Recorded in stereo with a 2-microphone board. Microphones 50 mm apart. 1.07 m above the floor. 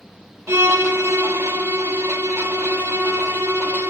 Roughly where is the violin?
Right.